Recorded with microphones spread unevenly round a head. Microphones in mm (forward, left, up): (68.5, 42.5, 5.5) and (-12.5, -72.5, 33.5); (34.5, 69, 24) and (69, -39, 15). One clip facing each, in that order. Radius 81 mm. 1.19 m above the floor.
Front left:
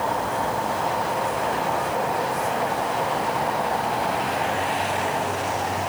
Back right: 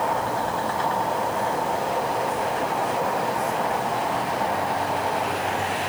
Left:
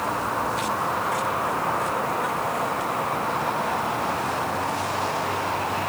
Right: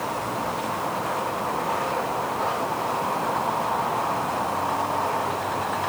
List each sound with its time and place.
Only background noise.